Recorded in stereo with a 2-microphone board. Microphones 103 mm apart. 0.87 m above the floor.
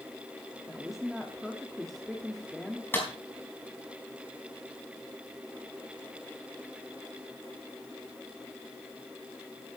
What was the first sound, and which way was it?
A woman speaking, centre (ahead or behind).